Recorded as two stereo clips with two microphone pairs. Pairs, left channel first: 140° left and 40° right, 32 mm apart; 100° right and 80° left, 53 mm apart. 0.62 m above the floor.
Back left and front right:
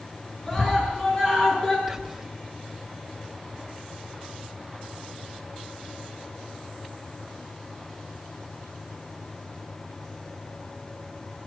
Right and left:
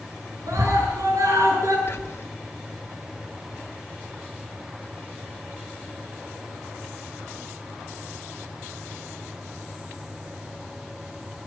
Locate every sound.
0.5 s a scream: 70° left, 8 m
1.9 s whispering: 125° right, 1.2 m